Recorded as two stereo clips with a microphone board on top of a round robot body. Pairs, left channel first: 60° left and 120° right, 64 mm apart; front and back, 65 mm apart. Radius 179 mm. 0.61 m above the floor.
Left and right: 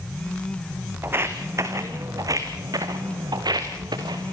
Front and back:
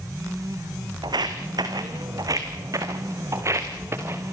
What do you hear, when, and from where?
1.0 s footsteps: 175° right, 2.5 m; by 4.3 s 130° right, 4 m